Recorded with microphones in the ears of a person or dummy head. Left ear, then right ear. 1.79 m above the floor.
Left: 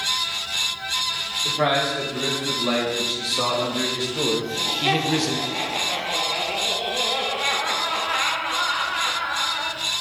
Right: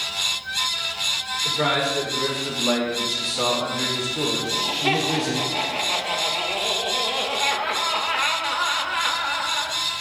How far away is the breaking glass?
I don't hear breaking glass.